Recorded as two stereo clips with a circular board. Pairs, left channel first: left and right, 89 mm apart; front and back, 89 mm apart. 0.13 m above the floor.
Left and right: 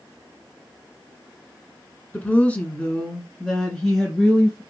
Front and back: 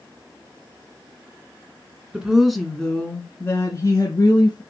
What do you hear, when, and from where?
2.1 s a woman speaking: 125° left, 1.4 m; by 4.6 s 5° left, 2 m